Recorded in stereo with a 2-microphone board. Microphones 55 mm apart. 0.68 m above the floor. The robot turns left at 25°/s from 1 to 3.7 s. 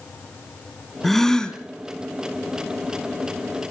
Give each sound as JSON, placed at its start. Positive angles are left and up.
{"t": 1.0, "sound": "a gasp", "side_deg": 5, "distance_m": 1.7}